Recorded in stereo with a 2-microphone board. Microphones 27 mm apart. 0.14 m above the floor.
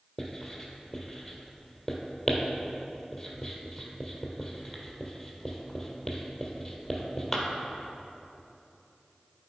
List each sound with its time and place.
0.2 s writing: 5° left (ahead or behind), 1.4 m